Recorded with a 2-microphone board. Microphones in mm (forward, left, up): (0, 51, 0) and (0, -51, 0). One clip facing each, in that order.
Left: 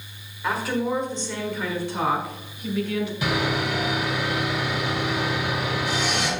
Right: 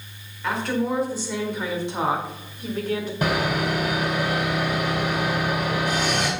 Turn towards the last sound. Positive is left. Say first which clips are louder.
# right 4 dB
turn(degrees=-50)  # may be behind; listen again after turning